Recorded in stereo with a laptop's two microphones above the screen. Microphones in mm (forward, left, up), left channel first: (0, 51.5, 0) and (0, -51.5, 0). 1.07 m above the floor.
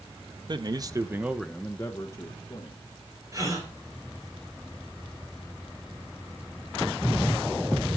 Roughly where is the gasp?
Right.